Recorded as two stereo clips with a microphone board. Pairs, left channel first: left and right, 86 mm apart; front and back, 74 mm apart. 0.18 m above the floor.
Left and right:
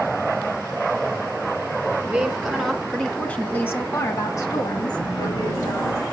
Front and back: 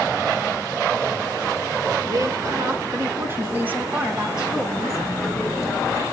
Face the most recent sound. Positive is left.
turn(degrees=70)